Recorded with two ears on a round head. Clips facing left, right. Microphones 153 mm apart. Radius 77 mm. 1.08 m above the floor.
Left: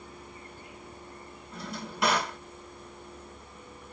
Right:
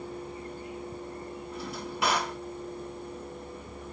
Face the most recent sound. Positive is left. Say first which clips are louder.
# even
turn(degrees=-5)  # may be behind; listen again after turning